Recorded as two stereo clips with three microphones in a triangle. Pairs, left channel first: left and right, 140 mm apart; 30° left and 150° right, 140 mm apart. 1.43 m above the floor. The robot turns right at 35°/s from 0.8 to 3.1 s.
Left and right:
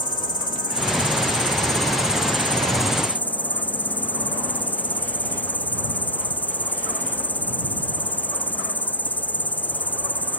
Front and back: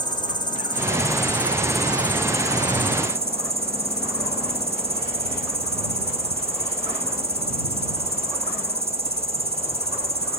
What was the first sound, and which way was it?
An insect, 85° left.